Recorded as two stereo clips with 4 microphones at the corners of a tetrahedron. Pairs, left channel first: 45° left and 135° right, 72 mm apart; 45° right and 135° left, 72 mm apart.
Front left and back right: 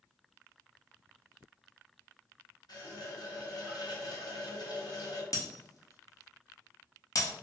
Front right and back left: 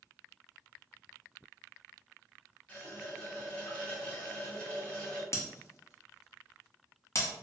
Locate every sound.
2.7 s a running tap: 30° left, 0.8 m
5.3 s breaking glass: 5° left, 0.6 m